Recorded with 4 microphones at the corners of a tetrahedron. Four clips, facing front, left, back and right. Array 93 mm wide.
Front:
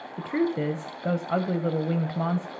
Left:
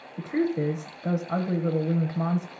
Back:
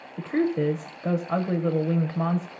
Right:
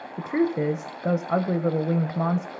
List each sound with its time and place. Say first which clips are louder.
0.2 s a woman speaking: right 2 dB, back 2 dB; 90° right, 0.9 m